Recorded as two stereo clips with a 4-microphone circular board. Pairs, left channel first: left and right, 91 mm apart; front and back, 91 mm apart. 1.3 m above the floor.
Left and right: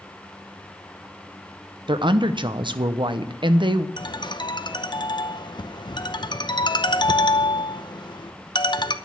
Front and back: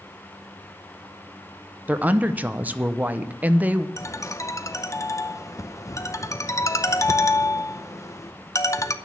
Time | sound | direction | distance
1.9 | a woman speaking | 110° right | 0.8 m
4.0 | a ringtone | 55° left | 0.7 m